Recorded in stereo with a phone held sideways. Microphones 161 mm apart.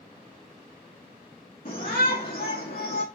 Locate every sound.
1.6 s a shout: 60° left (ahead or behind), 1.9 m; by 3.0 s 80° left, 2 m